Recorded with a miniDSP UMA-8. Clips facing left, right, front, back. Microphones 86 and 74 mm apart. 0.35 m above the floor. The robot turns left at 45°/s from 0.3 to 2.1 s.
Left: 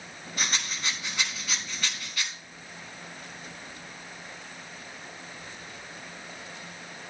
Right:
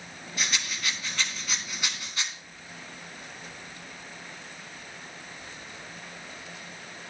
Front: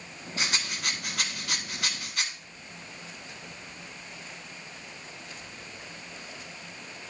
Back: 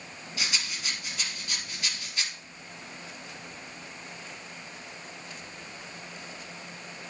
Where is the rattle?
50° left, 1.4 m; by 2.3 s 25° right, 1.4 m.